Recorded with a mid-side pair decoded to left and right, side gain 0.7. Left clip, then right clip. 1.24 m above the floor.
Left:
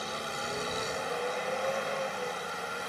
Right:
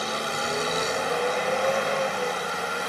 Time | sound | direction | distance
0.0 | a vehicle | 35° right | ?